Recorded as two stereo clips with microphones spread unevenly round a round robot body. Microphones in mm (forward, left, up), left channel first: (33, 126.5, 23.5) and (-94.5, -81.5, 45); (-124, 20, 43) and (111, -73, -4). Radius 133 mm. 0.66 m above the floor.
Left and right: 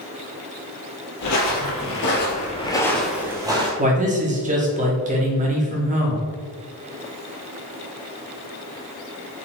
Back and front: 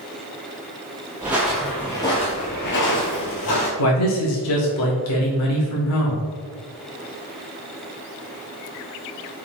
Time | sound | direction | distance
1.2 | footsteps | 65° left | 1.3 m
3.8 | a man speaking | straight behind | 1.4 m